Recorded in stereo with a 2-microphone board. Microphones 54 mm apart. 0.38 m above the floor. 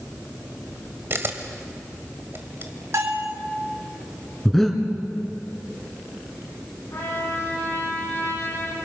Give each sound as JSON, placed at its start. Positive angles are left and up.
{"t": 1.1, "sound": "a camera shutter", "side_deg": -45, "distance_m": 1.8}
{"t": 2.9, "sound": "a bell", "side_deg": -55, "distance_m": 3.0}
{"t": 4.5, "sound": "breathing", "side_deg": 5, "distance_m": 2.5}
{"t": 6.9, "sound": "a trumpet", "side_deg": 55, "distance_m": 7.5}